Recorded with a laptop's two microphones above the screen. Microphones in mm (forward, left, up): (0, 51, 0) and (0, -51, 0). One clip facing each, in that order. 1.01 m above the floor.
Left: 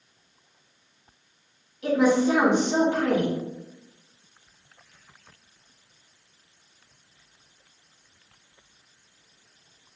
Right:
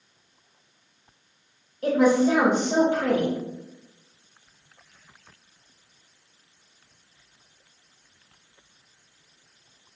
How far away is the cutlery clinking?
No cutlery clinking in this recording.